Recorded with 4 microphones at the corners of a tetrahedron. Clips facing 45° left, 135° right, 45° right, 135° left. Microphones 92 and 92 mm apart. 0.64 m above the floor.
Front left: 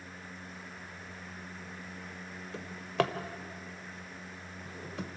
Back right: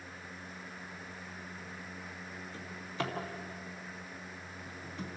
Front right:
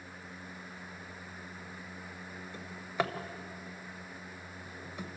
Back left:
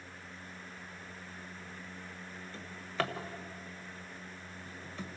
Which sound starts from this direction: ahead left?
A drawer, at 2.5 s.